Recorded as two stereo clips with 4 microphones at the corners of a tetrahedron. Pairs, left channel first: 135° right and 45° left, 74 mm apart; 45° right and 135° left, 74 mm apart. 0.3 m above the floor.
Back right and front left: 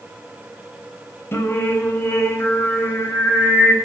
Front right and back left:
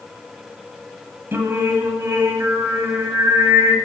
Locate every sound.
1.3 s singing: straight behind, 1.0 m